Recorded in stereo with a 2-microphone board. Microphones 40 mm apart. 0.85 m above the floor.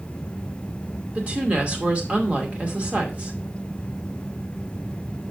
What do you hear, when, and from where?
1.1 s a woman speaking: 35° right (ahead or behind), 2 m